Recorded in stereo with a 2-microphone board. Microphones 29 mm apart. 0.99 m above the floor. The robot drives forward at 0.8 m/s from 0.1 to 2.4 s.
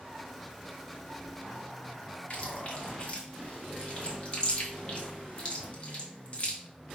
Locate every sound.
2.3 s chewing: 45° left (ahead or behind), 1.0 m